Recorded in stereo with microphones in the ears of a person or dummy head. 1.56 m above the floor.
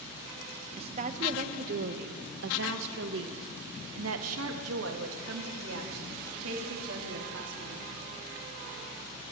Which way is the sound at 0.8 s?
35° right (ahead or behind).